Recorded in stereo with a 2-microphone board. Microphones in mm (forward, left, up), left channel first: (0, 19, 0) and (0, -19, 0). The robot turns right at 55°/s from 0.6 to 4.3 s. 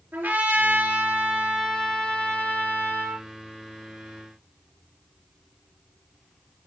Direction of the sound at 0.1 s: 65° right.